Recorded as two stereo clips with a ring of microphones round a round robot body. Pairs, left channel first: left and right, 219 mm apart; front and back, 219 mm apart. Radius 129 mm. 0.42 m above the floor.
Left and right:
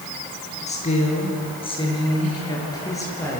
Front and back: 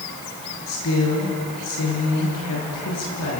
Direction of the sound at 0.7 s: 30° left.